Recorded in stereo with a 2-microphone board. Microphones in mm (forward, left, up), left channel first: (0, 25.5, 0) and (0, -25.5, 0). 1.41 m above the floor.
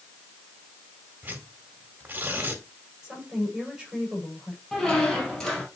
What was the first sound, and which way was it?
Tearing paper, 35° right (ahead or behind).